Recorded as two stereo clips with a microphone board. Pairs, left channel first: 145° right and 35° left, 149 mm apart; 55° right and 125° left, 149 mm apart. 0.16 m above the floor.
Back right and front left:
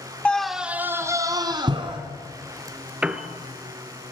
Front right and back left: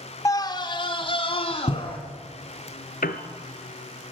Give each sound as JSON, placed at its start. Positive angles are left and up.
{"t": 0.2, "sound": "a scream", "azimuth_deg": -75, "distance_m": 1.1}
{"t": 3.0, "sound": "a piano", "azimuth_deg": -45, "distance_m": 1.6}